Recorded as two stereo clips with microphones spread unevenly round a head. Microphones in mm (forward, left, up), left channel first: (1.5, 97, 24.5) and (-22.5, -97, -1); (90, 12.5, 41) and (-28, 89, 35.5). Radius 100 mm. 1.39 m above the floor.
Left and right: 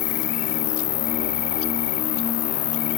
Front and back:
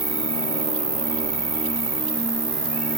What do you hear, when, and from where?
0.0 s an insect: 95° left, 0.9 m